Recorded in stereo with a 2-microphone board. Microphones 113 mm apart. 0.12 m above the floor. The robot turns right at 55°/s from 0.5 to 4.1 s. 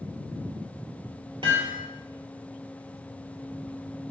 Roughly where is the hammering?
Right.